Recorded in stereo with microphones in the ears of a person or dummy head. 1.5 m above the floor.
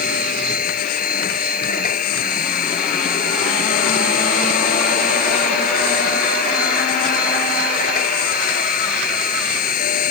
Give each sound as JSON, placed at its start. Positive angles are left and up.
{"t": 0.0, "sound": "a machine running", "side_deg": 45}